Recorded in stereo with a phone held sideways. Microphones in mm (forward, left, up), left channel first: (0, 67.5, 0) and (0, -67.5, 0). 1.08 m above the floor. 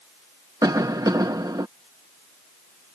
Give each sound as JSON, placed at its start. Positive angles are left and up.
{"t": 0.6, "sound": "a cough", "side_deg": -25}